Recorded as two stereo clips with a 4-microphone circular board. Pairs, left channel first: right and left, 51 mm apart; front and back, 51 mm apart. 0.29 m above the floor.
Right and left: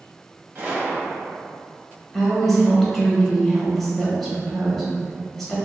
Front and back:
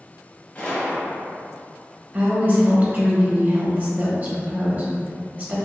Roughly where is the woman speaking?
Behind.